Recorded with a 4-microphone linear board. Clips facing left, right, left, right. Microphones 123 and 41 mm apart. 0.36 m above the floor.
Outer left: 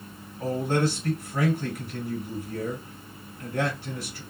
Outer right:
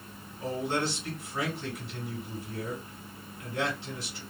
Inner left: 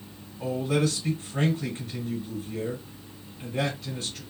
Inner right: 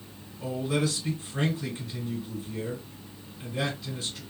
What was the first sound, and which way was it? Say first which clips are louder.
A man speaking: outer left 5 dB, inner left 2 dB; 50° left (ahead or behind).